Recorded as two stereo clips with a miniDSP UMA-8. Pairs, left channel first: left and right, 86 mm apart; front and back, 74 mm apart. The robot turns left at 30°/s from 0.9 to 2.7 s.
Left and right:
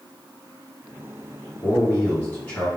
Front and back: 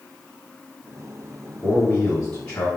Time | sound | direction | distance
1.6 | a man speaking | 75° left | 1.6 m